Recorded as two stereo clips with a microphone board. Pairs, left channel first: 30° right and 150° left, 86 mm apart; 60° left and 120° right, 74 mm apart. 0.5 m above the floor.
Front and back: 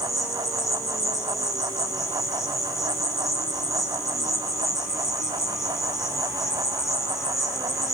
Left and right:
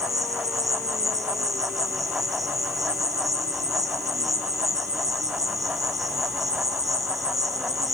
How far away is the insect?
About 5 m.